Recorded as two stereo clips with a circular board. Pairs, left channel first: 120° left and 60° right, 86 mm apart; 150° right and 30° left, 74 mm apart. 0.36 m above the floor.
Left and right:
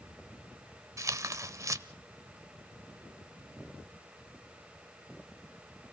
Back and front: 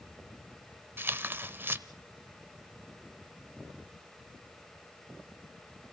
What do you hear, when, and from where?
1.0 s tearing paper: 25° right, 0.8 m